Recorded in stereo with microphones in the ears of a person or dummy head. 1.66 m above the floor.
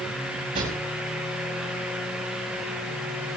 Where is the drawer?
40° right (ahead or behind), 2.5 m.